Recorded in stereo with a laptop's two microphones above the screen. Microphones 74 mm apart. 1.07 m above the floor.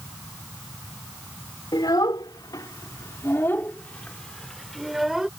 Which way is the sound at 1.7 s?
85° left.